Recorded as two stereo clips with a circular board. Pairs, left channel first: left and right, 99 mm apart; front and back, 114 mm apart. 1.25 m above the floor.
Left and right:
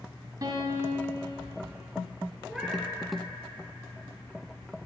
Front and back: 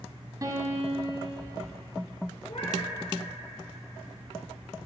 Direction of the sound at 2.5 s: 5° right.